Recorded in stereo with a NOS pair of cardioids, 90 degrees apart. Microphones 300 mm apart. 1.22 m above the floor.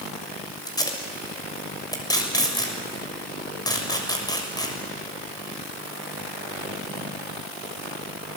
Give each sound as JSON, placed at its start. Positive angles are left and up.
{"t": 0.7, "sound": "tape being pulled", "azimuth_deg": 15, "distance_m": 6.5}